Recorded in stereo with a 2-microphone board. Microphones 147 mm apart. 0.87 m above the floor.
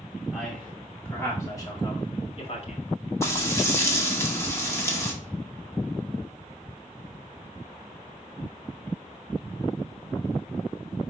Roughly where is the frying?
Centre.